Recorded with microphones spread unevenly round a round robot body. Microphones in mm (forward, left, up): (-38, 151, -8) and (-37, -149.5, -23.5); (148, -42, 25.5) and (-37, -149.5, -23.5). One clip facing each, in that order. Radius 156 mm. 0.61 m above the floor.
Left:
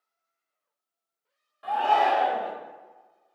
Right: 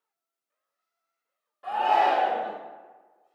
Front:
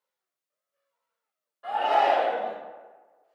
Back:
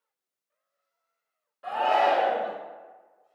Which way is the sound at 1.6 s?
155° left.